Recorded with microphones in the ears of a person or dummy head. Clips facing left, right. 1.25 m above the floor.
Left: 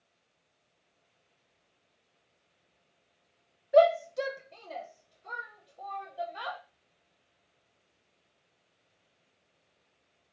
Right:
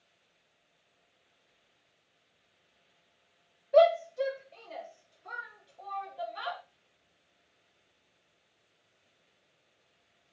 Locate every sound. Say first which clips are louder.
3.7 s a shout: even; 10° left (ahead or behind), 0.7 m; by 6.6 s 45° left (ahead or behind), 3.5 m